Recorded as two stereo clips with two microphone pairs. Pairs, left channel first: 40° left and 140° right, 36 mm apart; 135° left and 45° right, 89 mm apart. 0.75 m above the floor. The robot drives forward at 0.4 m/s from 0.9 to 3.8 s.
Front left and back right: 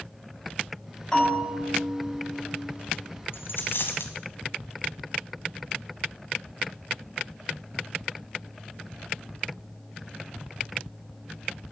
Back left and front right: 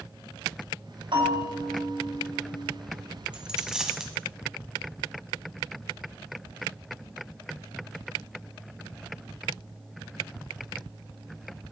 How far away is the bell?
About 6 m.